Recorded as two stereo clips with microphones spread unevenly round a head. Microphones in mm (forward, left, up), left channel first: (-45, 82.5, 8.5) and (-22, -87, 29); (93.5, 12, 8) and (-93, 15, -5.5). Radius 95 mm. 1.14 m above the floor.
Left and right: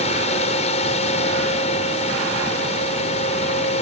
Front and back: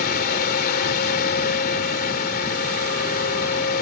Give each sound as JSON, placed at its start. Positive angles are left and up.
{"t": 0.0, "sound": "a fan", "azimuth_deg": 40}